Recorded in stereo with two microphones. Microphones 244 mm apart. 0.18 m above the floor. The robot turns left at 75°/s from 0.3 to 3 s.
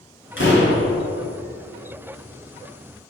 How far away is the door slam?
About 2.0 m.